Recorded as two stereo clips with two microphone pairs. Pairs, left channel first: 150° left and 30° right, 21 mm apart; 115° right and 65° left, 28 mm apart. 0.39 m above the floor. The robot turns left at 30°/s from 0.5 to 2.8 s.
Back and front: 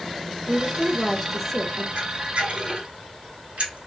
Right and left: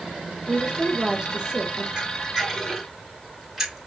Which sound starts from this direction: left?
A woman speaking, at 0.5 s.